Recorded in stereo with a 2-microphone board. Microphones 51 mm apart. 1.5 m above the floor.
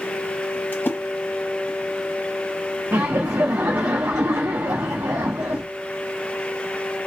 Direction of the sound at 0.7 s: 40° left (ahead or behind).